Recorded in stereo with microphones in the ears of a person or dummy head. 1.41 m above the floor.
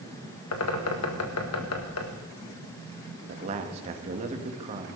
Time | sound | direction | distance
0.5 | a bird | 80° left | 1.6 m
3.3 | a man speaking | 35° right (ahead or behind) | 1.6 m